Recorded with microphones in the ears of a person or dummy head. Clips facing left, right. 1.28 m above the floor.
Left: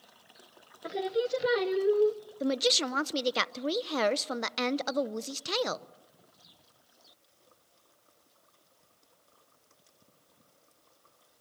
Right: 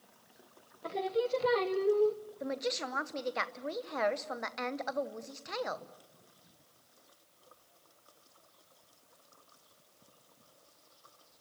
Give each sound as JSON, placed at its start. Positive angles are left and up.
{"t": 0.8, "sound": "singing", "side_deg": 20, "distance_m": 0.7}
{"t": 2.4, "sound": "a woman speaking", "side_deg": 50, "distance_m": 0.7}